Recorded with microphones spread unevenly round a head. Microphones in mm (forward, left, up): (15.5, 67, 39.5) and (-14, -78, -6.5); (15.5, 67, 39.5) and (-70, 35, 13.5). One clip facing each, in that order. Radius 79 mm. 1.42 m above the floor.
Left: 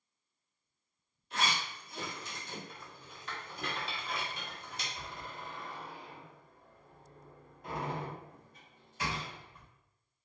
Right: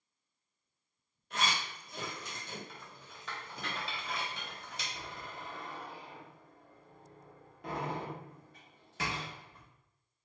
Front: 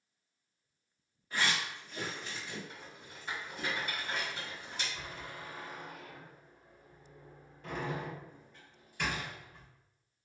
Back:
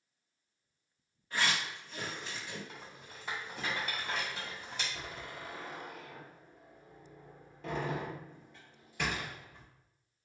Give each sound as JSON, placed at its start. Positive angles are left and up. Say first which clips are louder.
{"t": 1.3, "sound": "a zipper", "louder": "even, even", "azimuth_deg": -50, "distance_m": 1.6}
{"t": 2.7, "sound": "a rattle", "louder": "left 1 dB, even", "azimuth_deg": -120, "distance_m": 1.6}
{"t": 4.9, "sound": "a door slam", "louder": "even, back 1 dB", "azimuth_deg": -140, "distance_m": 1.4}